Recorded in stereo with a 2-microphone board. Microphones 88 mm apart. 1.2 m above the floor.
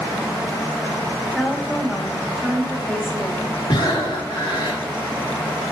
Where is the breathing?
65° left (ahead or behind), 3 m.